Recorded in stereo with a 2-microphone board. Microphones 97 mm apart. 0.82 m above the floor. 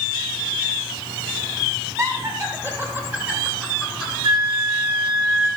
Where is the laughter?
40° right (ahead or behind), 3 m; by 4.1 s 5° right (ahead or behind), 3.5 m.